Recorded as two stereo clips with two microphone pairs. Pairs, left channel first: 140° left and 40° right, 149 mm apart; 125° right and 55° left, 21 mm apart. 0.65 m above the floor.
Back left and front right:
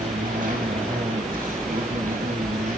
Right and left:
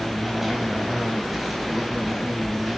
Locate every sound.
0.0 s an insect: 25° right, 4.5 m